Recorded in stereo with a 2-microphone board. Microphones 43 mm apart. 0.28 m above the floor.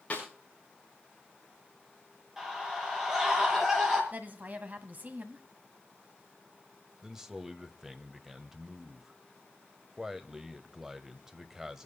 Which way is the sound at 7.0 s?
15° right (ahead or behind).